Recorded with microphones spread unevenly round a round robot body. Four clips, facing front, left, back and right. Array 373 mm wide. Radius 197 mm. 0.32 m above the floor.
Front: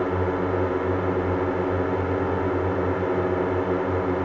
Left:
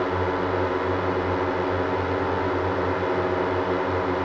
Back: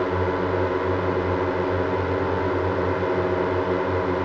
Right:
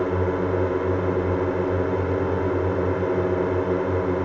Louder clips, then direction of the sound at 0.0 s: Right 1 dB, back 1 dB; 110° right.